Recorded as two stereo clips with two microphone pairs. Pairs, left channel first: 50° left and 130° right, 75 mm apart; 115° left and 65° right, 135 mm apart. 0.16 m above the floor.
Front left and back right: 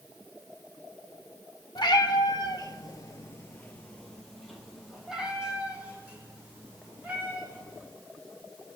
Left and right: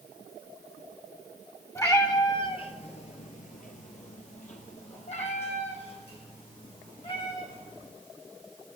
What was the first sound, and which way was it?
A cat meowing, 45° left.